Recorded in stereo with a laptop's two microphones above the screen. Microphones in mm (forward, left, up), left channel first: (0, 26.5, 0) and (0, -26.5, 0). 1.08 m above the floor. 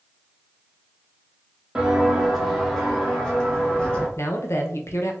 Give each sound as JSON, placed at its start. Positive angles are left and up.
{"t": 1.8, "sound": "footsteps", "side_deg": -15, "distance_m": 1.5}
{"t": 4.2, "sound": "a man speaking", "side_deg": 65, "distance_m": 0.7}